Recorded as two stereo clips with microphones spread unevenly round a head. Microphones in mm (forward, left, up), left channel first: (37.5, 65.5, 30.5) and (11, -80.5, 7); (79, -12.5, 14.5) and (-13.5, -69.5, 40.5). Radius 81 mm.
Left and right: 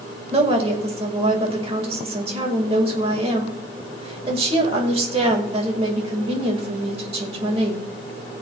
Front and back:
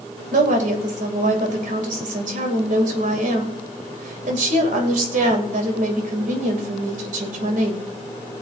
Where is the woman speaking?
155° right, 1.9 m.